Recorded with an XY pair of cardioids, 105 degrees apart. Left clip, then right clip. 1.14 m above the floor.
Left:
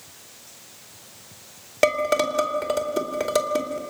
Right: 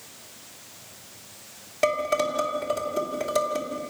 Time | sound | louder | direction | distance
1.8 | dishes clattering | left 3 dB | 50° left | 2.5 m